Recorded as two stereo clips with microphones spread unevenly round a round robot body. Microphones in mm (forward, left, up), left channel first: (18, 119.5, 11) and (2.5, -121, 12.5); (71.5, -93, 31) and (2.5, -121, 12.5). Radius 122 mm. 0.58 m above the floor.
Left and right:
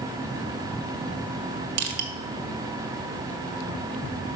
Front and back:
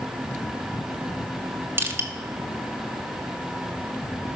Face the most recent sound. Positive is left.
turn(degrees=-100)